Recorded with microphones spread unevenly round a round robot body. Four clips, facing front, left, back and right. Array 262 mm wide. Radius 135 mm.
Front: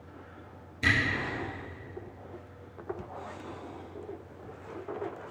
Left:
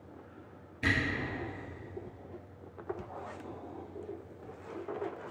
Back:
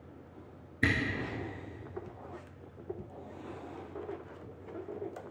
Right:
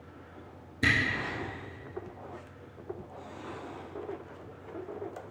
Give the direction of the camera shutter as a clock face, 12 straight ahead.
5 o'clock.